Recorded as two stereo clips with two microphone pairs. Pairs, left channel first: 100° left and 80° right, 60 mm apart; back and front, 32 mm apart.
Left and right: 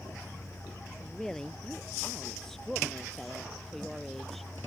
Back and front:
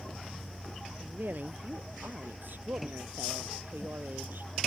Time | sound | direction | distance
1.0 | a woman speaking | 20° left | ?